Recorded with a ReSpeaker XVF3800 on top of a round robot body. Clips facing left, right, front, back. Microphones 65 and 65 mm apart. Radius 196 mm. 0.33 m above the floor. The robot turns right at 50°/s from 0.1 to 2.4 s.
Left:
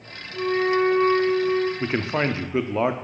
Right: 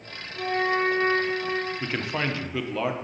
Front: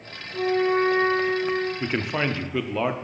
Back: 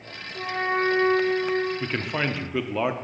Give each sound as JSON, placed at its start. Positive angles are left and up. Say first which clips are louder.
{"t": 0.3, "sound": "a flute", "louder": "left 4 dB, front 5 dB", "azimuth_deg": 55, "distance_m": 3.5}
{"t": 1.8, "sound": "a man speaking", "louder": "left 5 dB, front 2 dB", "azimuth_deg": 65, "distance_m": 0.9}